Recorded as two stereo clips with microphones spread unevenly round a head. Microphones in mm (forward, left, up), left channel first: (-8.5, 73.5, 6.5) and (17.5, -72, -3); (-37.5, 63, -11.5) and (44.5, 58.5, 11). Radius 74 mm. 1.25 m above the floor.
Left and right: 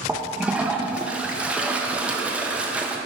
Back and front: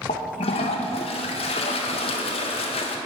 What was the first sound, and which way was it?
A toilet flushing, 165° right.